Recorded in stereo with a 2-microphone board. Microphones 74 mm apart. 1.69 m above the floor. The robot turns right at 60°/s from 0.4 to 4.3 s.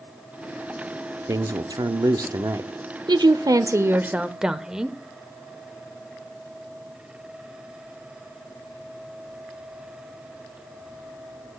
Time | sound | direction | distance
1.3 | a man speaking | 125° right | 0.6 m
3.1 | a woman speaking | 85° right | 0.7 m